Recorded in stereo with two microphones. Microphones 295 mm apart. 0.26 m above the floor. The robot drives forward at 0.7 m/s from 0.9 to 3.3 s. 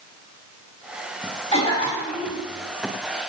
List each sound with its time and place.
1.5 s a cough: 20° left (ahead or behind), 1.7 m; by 2.4 s 15° left (ahead or behind), 2 m